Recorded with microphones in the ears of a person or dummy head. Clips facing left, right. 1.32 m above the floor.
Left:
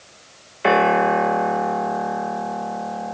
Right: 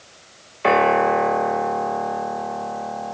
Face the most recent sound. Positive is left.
turn(degrees=5)  # may be behind; listen again after turning